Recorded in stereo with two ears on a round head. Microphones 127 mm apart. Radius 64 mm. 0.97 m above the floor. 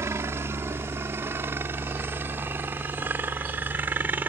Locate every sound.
0.0 s a helicopter: 20° right (ahead or behind); by 4.3 s 15° right (ahead or behind)
3.0 s a sliding door: 20° left (ahead or behind)